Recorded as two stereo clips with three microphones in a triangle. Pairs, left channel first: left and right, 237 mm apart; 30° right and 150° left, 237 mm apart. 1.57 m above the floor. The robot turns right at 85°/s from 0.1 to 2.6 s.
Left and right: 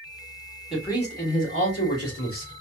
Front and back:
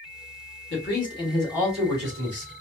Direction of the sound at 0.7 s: 5° right.